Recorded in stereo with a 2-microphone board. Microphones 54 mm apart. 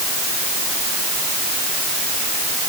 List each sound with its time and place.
Only background noise.